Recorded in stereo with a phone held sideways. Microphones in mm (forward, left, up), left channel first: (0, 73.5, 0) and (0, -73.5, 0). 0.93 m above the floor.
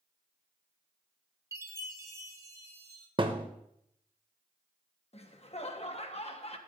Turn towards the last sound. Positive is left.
turn(degrees=45)  # may be behind; listen again after turning